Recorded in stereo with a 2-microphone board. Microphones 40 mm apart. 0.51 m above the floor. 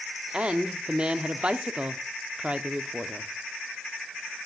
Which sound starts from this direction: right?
A woman speaking, at 0.3 s.